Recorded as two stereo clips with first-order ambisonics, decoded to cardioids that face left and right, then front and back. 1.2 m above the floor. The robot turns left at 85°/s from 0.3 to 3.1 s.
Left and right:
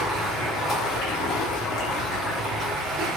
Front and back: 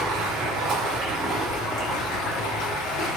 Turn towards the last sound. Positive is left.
turn(degrees=-60)